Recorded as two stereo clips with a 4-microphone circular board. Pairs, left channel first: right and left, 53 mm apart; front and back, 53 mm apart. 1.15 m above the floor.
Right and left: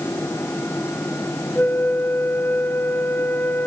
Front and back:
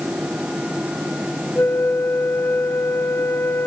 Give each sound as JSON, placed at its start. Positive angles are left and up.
{"t": 1.6, "sound": "a flute", "azimuth_deg": -45, "distance_m": 1.6}